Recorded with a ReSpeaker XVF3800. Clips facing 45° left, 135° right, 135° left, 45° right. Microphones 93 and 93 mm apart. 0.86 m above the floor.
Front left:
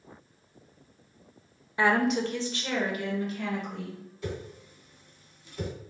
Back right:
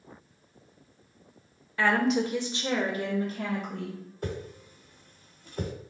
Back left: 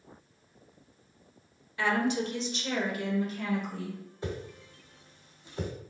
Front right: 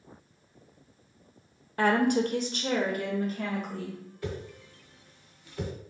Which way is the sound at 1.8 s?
20° right.